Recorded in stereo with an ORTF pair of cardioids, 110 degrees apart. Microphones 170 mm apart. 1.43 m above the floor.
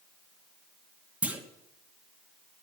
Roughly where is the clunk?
Ahead.